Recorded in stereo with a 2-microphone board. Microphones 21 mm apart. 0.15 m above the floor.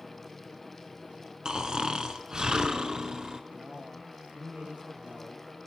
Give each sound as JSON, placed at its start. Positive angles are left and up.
{"t": 1.4, "sound": "snoring", "side_deg": -35, "distance_m": 2.0}
{"t": 3.5, "sound": "a man speaking", "side_deg": -75, "distance_m": 9.5}